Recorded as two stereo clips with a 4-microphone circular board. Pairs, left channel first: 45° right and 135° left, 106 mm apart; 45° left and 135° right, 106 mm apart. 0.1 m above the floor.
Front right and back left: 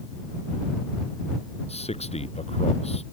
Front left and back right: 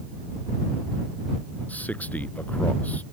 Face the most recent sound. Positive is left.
turn(degrees=-30)